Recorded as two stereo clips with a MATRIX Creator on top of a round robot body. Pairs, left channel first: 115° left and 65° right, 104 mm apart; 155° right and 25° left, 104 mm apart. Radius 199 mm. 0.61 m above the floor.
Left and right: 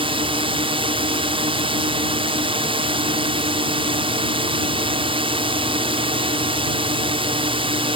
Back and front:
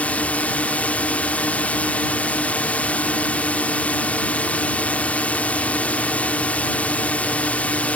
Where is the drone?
80° right.